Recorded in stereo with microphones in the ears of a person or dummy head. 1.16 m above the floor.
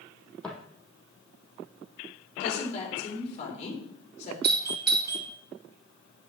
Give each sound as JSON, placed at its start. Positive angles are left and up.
{"t": 0.4, "sound": "footsteps", "side_deg": 5, "distance_m": 2.5}
{"t": 2.4, "sound": "a woman speaking", "side_deg": 40, "distance_m": 3.5}
{"t": 4.4, "sound": "a doorbell", "side_deg": -50, "distance_m": 1.2}